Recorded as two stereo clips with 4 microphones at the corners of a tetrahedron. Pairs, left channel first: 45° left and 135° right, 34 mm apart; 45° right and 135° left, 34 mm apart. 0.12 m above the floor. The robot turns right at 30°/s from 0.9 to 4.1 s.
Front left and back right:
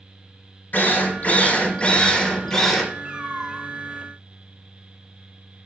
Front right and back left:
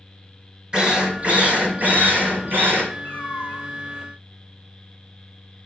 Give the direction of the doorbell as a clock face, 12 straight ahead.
No doorbell in this recording.